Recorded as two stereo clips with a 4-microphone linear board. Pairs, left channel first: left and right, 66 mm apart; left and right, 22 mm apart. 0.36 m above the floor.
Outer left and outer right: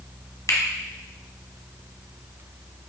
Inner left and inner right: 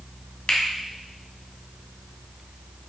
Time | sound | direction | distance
0.5 | a finger snap | 60° left (ahead or behind) | 1.7 m